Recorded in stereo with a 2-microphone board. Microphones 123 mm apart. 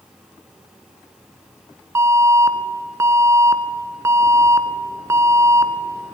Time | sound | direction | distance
1.9 | an alarm | 25° right (ahead or behind) | 1.0 m